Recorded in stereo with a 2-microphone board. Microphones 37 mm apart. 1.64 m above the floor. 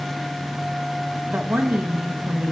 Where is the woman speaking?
65° right (ahead or behind), 1.1 m; by 2.5 s 35° right (ahead or behind), 1.4 m.